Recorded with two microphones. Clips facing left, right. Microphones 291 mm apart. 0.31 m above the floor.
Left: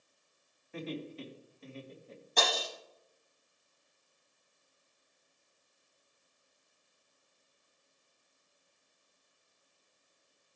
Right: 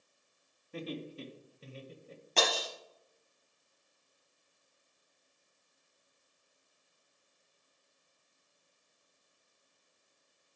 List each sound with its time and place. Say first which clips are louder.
0.7 s laughter: left 1 dB; 40° right (ahead or behind), 2 m; by 2.2 s 35° right (ahead or behind), 1.7 m
2.4 s breaking glass: right 1 dB; 70° right (ahead or behind), 4 m